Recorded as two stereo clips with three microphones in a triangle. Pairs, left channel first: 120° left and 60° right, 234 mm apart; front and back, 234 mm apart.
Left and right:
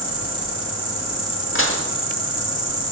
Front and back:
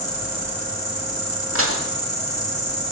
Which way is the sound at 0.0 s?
50° left.